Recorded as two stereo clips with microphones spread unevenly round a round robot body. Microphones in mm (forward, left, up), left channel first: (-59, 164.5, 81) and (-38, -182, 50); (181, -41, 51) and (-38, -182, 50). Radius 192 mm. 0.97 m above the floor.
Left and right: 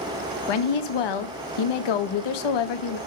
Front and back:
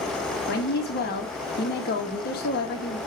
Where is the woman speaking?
95° left, 1.2 m.